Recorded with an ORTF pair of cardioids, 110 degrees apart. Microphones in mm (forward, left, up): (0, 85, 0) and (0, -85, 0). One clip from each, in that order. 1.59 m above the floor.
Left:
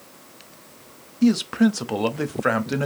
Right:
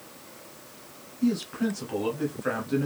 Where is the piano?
No piano in this recording.